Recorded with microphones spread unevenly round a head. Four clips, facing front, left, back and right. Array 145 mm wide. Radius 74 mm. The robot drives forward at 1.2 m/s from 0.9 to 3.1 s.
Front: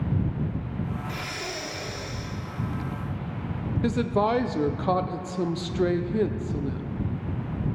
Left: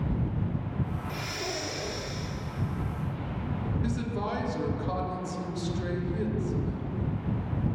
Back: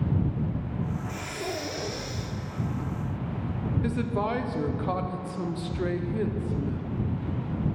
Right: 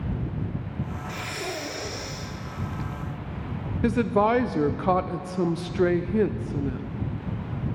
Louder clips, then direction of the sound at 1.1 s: Right 2 dB, back 1 dB; 55° right.